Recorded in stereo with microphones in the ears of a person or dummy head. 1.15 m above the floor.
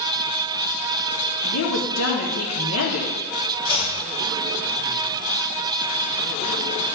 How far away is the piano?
No piano in this recording.